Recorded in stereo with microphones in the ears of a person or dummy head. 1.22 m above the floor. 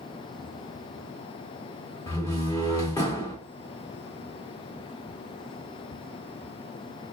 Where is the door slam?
15° left (ahead or behind), 2 m.